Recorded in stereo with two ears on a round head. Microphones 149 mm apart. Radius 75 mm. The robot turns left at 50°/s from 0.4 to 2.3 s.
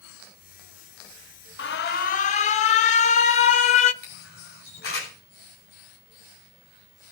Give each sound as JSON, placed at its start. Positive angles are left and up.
{"t": 1.6, "sound": "an alarm", "azimuth_deg": 80, "distance_m": 0.8}
{"t": 4.0, "sound": "a camera shutter", "side_deg": 65, "distance_m": 7.5}